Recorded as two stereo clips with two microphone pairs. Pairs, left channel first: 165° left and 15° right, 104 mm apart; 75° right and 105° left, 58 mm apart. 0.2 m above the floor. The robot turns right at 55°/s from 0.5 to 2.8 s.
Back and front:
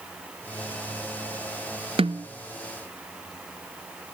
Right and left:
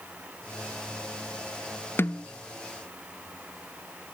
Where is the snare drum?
30° right, 0.9 m; by 2.3 s 15° right, 0.9 m.